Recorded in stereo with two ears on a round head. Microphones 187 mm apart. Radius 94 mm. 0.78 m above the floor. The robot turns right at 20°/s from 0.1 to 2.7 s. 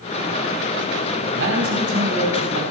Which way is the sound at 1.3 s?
65° right (ahead or behind).